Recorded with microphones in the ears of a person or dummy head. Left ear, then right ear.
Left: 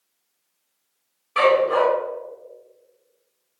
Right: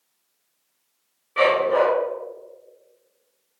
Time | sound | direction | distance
1.4 | a dog barking | 60° left (ahead or behind) | 3 m